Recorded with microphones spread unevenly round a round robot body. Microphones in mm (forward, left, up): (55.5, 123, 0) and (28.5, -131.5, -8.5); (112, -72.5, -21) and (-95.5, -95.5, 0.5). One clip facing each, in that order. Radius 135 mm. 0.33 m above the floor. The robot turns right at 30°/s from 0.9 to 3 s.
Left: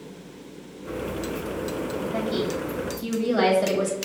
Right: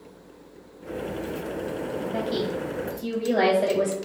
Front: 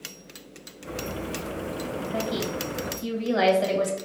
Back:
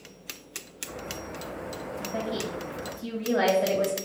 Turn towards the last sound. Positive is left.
turn(degrees=5)